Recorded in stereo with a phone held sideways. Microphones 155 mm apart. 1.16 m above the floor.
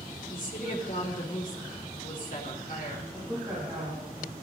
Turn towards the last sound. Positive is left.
turn(degrees=-10)  # may be behind; listen again after turning